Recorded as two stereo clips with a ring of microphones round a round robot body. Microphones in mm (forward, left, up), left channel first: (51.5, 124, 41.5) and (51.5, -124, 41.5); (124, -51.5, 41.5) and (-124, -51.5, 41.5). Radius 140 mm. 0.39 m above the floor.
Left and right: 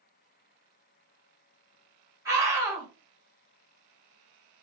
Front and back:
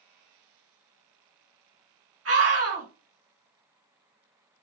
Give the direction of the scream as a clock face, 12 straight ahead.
6 o'clock.